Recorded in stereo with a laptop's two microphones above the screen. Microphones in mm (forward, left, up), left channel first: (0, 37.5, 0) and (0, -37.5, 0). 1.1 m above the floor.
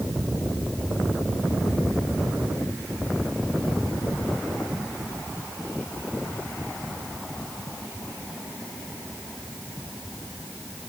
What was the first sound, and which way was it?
Only background noise.